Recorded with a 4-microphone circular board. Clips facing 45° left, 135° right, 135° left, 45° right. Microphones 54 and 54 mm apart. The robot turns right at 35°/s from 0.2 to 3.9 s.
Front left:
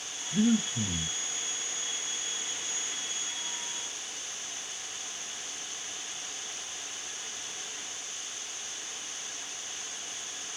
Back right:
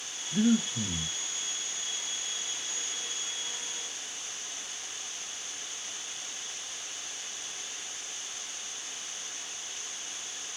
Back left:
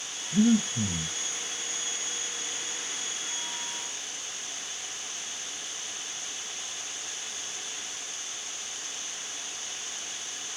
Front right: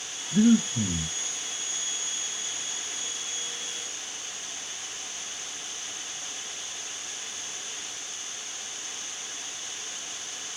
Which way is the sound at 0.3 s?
70° right.